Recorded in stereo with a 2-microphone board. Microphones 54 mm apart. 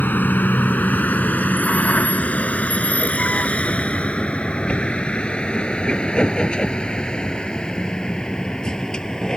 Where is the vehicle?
35° left (ahead or behind); by 9.4 s 15° left (ahead or behind).